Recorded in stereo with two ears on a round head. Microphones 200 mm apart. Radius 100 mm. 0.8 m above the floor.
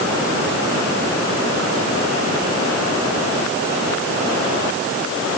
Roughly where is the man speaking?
I don't hear a man speaking.